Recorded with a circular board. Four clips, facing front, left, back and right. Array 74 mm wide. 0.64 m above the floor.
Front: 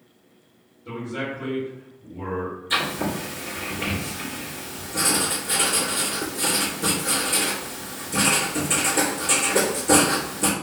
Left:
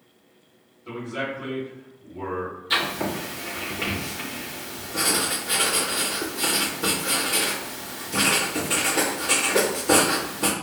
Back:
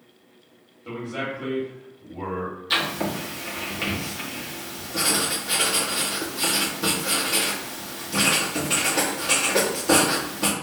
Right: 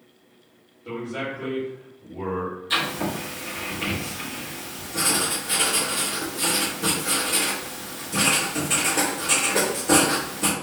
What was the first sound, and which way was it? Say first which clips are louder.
A man speaking: even, even; 155° right.